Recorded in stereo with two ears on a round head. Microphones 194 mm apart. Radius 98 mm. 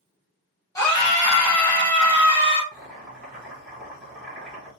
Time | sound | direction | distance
0.8 | a scream | 15° left (ahead or behind) | 0.7 m
2.7 | boiling | centre (ahead or behind) | 1.1 m